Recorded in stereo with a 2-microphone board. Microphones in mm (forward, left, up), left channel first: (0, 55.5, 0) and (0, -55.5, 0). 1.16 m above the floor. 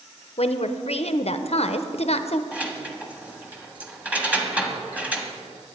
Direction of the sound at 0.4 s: 60° left (ahead or behind).